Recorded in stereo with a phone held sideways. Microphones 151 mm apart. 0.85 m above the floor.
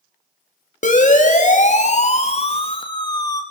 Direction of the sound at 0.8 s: 55° left (ahead or behind).